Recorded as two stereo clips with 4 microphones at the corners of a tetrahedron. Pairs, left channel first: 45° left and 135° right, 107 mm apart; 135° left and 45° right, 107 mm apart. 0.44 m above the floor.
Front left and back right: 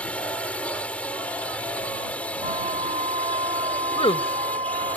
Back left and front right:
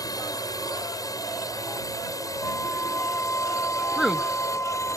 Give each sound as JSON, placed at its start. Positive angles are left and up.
{"t": 0.0, "sound": "a drone", "azimuth_deg": 115}
{"t": 2.4, "sound": "a flute", "azimuth_deg": -155}
{"t": 4.0, "sound": "a woman speaking", "azimuth_deg": 40}